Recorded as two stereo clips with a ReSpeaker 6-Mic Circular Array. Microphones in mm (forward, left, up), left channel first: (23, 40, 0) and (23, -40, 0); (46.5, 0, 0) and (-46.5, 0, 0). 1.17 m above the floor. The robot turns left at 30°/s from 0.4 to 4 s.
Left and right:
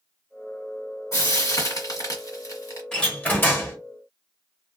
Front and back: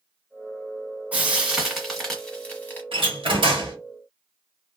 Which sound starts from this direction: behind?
A door slam, at 2.9 s.